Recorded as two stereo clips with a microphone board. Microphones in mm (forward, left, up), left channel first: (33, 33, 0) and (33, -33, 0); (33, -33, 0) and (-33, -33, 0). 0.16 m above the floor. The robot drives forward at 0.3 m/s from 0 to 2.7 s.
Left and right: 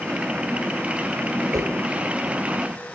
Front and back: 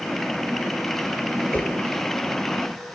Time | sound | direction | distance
1.5 | a whoosh | 65° right | 1.0 m